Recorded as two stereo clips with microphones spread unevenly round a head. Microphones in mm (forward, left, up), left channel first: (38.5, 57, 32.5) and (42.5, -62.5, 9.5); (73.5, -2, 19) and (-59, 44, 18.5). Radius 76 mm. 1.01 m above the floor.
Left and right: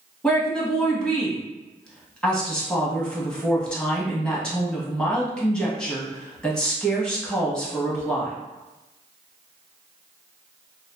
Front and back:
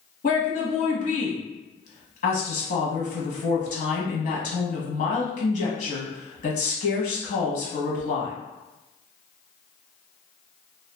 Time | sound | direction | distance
0.2 | a woman speaking | 5° left | 1.0 m